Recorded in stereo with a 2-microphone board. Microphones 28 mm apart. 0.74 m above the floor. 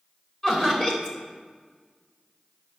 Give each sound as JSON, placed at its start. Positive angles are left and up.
{"t": 0.4, "sound": "laughter", "side_deg": 30, "distance_m": 3.0}